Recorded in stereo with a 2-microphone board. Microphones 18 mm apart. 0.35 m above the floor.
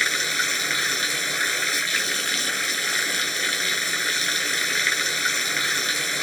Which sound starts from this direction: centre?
Running water, at 0.0 s.